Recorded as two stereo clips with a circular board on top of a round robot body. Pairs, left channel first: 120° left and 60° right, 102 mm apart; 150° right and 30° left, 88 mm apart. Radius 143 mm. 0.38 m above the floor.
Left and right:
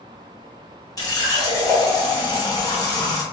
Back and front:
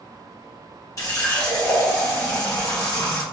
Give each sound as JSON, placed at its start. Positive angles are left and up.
{"t": 1.0, "sound": "a running tap", "azimuth_deg": 170, "distance_m": 1.3}